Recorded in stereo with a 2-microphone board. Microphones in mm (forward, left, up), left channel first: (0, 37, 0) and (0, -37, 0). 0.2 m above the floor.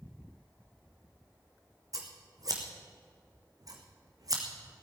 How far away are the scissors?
About 2 m.